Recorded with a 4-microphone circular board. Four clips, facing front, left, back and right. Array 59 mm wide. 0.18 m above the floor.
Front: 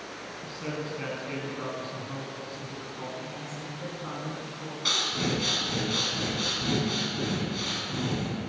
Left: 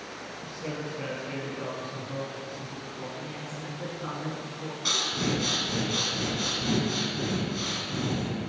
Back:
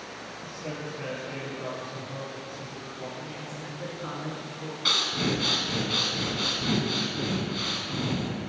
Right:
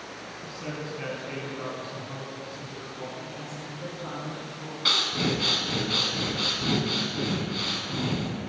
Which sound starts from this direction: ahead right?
A man speaking, at 0.4 s.